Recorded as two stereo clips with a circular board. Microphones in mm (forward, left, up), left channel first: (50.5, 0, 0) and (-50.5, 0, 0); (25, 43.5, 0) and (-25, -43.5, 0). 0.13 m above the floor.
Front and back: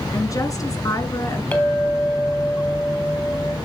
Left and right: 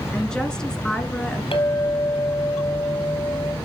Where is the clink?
70° left, 2.5 m.